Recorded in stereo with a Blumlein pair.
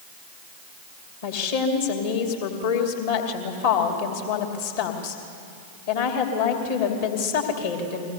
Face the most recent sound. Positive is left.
turn(degrees=55)